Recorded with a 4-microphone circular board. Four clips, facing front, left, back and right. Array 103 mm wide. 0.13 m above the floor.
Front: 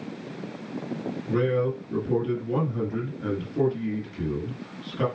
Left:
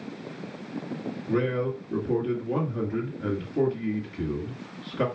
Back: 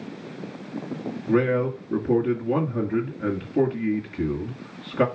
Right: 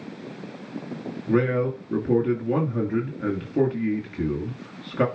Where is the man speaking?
135° right, 2 m.